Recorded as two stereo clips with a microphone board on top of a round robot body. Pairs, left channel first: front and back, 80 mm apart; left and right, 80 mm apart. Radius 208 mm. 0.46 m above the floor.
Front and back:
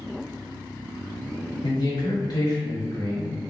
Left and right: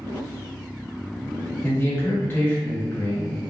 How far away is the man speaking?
About 1.6 m.